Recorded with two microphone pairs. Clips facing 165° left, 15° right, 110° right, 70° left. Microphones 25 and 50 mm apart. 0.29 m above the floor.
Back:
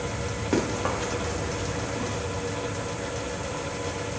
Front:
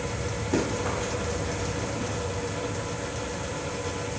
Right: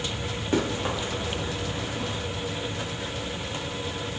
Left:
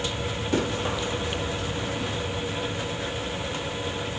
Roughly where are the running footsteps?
Behind.